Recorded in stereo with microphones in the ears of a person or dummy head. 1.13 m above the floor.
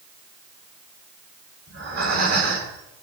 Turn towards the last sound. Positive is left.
turn(degrees=-50)  # may be behind; listen again after turning